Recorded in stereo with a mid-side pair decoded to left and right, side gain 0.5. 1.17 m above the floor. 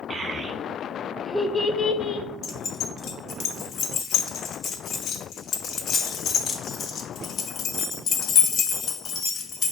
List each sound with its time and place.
0.1 s a child speaking: 40° right, 1.2 m; by 2.3 s 60° left, 0.7 m
2.4 s keys jangling: 60° left, 0.9 m